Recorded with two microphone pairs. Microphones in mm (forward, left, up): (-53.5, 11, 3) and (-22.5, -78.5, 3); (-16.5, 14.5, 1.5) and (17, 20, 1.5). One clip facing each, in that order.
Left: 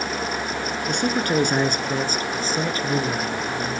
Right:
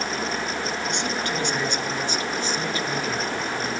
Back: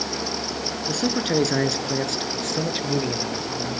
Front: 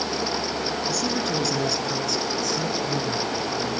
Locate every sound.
0.9 s a man speaking: 150° left, 4 m; by 3.8 s 165° left, 5 m